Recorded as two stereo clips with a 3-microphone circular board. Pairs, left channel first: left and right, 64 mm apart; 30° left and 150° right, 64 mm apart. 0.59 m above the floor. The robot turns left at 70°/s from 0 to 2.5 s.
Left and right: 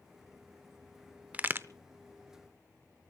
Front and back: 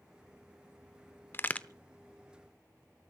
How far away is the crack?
About 0.7 m.